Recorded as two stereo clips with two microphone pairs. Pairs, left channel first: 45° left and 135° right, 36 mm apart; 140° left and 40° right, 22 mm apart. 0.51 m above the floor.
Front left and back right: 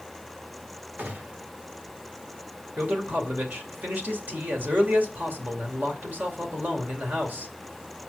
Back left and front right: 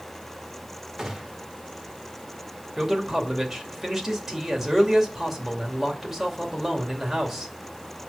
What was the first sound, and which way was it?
A gunshot, 115° right.